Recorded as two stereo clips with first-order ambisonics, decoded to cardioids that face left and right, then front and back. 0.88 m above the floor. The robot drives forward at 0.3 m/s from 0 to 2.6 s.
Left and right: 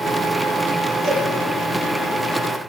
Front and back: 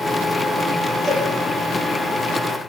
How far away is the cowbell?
About 5.5 m.